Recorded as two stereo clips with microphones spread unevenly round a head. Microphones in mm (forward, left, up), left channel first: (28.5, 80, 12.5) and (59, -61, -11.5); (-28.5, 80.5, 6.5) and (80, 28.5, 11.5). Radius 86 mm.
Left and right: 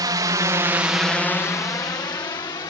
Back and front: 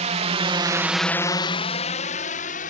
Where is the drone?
20° right; by 2.7 s 170° left.